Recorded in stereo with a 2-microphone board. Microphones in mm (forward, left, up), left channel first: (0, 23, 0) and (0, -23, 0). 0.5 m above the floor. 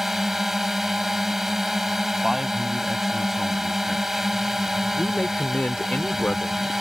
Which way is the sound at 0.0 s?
5° right (ahead or behind).